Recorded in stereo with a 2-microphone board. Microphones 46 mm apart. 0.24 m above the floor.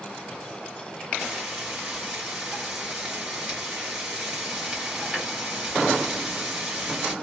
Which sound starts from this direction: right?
Frying, at 1.2 s.